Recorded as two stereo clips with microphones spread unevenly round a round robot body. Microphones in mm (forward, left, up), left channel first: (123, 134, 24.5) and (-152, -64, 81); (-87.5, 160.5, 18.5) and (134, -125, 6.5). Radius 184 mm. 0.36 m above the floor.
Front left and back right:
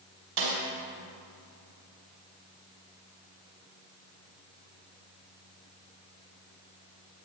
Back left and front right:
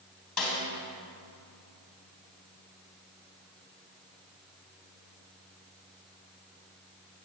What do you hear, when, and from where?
0.4 s a snare drum: 145° right, 3 m